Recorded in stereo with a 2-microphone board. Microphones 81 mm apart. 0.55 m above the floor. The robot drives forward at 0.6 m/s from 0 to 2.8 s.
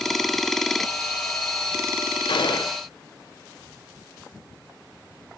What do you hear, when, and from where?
2.3 s a gunshot: 80° left, 1.0 m; by 2.8 s 75° left (ahead or behind), 1.0 m